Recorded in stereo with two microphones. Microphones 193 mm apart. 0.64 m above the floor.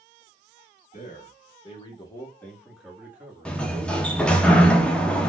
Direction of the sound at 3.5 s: 5° left (ahead or behind).